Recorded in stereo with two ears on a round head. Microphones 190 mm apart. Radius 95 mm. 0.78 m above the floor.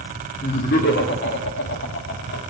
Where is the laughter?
35° left (ahead or behind), 1.7 m; by 2.5 s 50° left (ahead or behind), 2.5 m.